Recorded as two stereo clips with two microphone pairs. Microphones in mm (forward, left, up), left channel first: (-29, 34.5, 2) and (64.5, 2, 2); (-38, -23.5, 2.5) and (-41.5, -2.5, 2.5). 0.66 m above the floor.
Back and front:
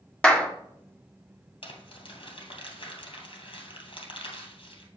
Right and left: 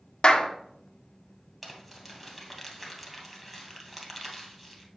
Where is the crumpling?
175° right, 2.5 m.